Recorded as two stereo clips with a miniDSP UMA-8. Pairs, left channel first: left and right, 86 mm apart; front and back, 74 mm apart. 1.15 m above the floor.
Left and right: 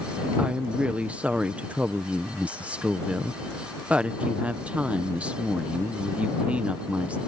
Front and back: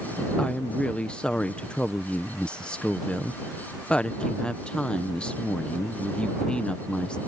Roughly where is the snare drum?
I don't hear a snare drum.